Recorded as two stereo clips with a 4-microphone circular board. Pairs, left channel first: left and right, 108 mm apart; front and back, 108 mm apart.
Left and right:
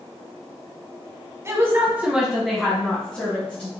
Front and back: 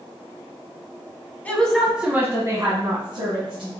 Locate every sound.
1.4 s a woman speaking: 60° right, 1.3 m; by 3.7 s 160° left, 2.5 m